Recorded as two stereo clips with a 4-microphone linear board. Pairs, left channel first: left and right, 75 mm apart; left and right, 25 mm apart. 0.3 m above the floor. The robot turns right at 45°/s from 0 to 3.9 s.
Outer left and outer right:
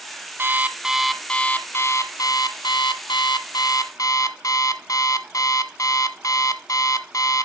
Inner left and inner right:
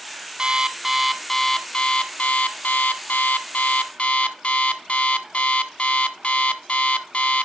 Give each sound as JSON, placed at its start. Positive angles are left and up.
{"t": 0.4, "sound": "an alarm clock", "azimuth_deg": -30, "distance_m": 1.2}